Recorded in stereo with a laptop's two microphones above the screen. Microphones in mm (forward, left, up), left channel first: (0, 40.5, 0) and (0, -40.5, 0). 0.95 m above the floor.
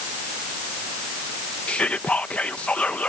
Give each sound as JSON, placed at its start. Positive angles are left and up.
{"t": 1.7, "sound": "whispering", "side_deg": 15}